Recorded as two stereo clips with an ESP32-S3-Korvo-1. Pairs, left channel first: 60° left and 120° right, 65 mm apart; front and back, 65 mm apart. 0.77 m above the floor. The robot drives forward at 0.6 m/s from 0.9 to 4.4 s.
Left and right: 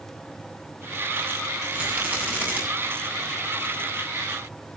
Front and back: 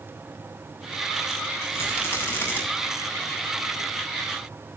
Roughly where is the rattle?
Ahead right.